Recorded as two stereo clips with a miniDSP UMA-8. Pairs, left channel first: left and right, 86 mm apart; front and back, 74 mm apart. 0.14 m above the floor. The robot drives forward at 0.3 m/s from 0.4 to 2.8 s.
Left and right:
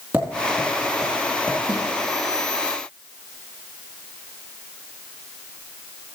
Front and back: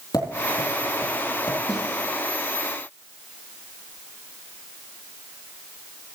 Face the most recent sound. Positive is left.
turn(degrees=-105)